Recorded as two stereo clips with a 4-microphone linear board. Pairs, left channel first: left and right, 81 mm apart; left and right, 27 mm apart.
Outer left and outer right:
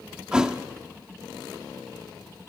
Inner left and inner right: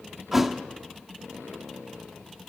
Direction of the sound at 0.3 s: 10° right (ahead or behind).